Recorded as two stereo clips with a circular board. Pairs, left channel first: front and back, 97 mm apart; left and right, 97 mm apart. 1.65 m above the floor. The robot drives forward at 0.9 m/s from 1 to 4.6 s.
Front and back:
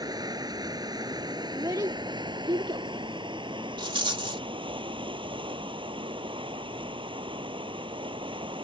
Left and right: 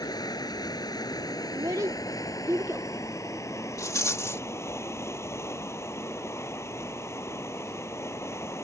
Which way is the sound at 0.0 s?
135° left.